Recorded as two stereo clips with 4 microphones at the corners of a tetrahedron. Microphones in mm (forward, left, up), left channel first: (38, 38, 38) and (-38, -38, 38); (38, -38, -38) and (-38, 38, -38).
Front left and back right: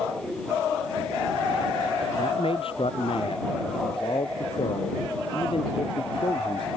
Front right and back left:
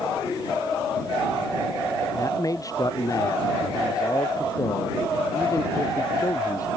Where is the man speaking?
15° left.